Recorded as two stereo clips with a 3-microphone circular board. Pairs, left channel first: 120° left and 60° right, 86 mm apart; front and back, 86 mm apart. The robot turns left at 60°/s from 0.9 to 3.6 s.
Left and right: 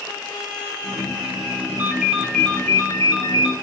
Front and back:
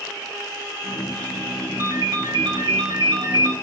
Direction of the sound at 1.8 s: 125° right.